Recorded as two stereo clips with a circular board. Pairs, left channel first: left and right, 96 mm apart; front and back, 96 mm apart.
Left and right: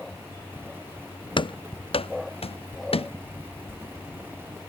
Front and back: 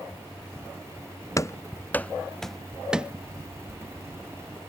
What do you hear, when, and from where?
1.4 s running footsteps: 55° left; by 3.1 s 100° left
3.5 s a bird: 150° left